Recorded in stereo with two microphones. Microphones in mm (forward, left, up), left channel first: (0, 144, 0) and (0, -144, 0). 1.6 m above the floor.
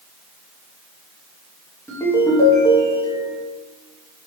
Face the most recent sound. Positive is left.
turn(degrees=10)  # may be behind; listen again after turning